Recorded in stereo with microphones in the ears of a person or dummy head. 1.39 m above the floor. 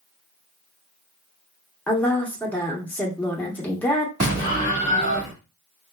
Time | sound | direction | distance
1.9 | a woman speaking | 10° left (ahead or behind) | 0.9 m
4.2 | an explosion | 50° right (ahead or behind) | 1.6 m